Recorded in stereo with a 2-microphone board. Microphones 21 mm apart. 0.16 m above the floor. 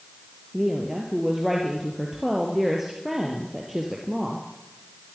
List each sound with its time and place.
0.5 s a woman speaking: 10° right (ahead or behind), 3.5 m